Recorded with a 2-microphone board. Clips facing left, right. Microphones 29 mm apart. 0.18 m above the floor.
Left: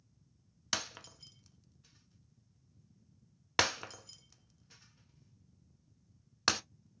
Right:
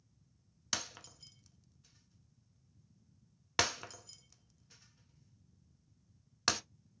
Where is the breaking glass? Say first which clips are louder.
Left 2 dB; 15° left (ahead or behind), 0.6 m.